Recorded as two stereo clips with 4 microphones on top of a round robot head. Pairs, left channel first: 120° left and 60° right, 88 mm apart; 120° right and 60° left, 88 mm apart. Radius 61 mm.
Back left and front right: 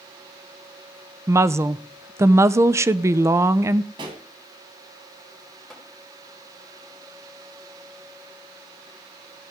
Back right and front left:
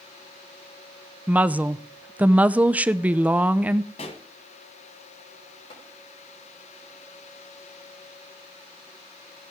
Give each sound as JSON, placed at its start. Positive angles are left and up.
{"t": 1.3, "sound": "a woman speaking", "azimuth_deg": -10, "distance_m": 0.6}
{"t": 4.0, "sound": "a pop", "azimuth_deg": -100, "distance_m": 1.9}
{"t": 5.7, "sound": "tapping", "azimuth_deg": -150, "distance_m": 5.0}